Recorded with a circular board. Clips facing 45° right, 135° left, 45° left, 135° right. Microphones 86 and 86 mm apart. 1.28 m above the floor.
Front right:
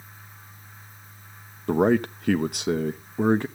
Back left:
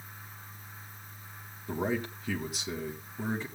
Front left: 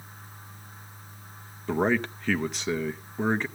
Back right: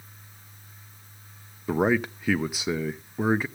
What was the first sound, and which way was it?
A man speaking, 50° right.